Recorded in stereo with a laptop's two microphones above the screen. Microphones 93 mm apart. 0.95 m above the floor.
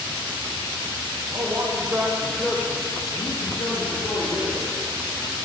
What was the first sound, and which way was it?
A man speaking, 45° right (ahead or behind).